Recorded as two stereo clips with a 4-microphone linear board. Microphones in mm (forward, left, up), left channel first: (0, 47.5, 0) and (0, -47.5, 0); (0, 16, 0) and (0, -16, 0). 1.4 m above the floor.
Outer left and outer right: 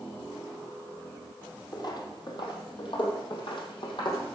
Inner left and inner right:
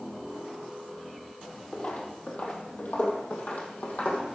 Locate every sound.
1.7 s footsteps: 45° left (ahead or behind), 2.5 m; by 4.2 s 50° left (ahead or behind), 3 m